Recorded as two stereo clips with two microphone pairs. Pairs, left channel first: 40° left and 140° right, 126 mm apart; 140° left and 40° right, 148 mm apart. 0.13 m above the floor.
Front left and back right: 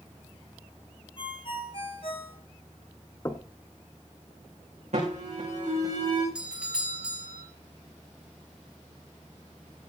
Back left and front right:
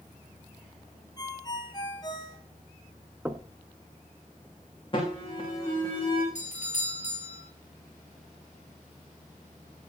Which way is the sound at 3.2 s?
25° left.